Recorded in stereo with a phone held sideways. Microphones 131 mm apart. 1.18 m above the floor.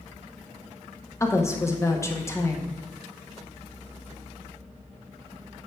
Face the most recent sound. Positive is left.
turn(degrees=20)  # may be behind; listen again after turning